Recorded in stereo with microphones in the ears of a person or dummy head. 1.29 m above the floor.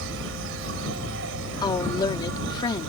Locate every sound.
0.0 s an insect: 70° right (ahead or behind)
1.6 s a woman speaking: 25° left (ahead or behind)